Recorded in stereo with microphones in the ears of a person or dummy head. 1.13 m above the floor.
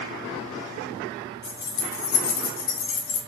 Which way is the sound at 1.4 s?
40° left (ahead or behind).